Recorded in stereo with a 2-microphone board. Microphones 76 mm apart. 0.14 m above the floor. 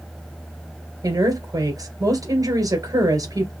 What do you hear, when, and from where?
1.0 s a woman speaking: 50° right (ahead or behind), 2.5 m